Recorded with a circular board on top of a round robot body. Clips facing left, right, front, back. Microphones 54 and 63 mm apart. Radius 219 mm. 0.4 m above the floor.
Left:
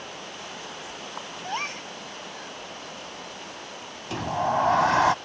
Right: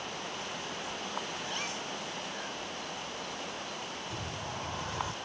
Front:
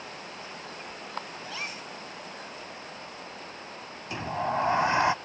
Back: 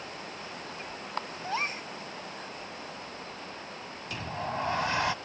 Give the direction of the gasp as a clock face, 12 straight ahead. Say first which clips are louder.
Left 6 dB, back 5 dB; 8 o'clock.